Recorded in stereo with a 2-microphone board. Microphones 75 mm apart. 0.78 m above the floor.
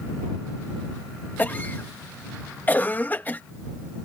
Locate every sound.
1.4 s a cough: 25° left (ahead or behind)